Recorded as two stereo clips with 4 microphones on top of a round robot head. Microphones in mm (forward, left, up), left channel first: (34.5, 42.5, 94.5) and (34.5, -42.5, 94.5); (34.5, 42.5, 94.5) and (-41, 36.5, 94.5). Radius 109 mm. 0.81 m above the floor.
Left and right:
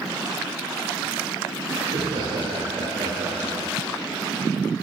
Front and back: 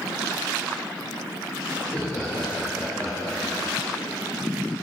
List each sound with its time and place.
1.8 s laughter: 60° right, 3 m; by 3.7 s 75° right, 4 m